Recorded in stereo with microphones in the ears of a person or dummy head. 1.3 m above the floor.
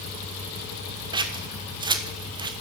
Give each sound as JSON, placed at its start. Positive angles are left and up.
{"t": 1.1, "sound": "scissors", "side_deg": -20, "distance_m": 0.8}